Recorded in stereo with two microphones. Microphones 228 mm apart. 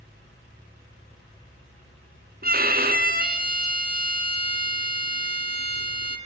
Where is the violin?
40° right (ahead or behind), 1.9 m.